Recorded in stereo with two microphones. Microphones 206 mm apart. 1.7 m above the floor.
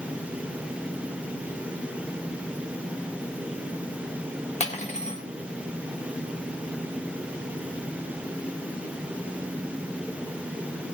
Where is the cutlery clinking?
35° left (ahead or behind), 1.3 m.